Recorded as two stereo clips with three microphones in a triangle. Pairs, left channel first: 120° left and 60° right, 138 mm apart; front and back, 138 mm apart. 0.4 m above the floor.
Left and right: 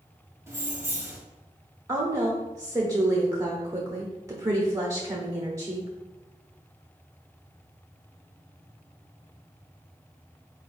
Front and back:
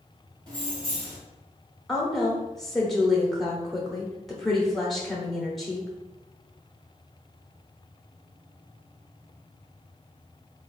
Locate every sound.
0.5 s keys jangling: 130° right, 1.4 m
1.9 s a woman speaking: 85° right, 0.9 m